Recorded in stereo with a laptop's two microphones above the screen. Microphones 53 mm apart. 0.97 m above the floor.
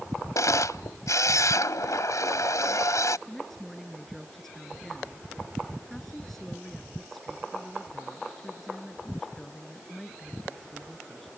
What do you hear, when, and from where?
0.3 s a camera shutter: 80° left
3.3 s a woman speaking: 5° left (ahead or behind)